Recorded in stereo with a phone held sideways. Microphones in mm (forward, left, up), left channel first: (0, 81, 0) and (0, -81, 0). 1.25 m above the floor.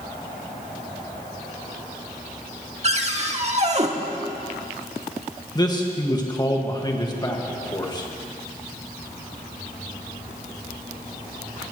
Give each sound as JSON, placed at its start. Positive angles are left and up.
{"t": 2.8, "sound": "a cupboard door", "side_deg": -40, "distance_m": 1.2}
{"t": 5.5, "sound": "a man speaking", "side_deg": 25, "distance_m": 1.8}